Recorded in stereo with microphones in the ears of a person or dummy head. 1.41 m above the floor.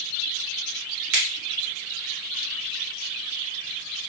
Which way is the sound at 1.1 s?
55° right (ahead or behind).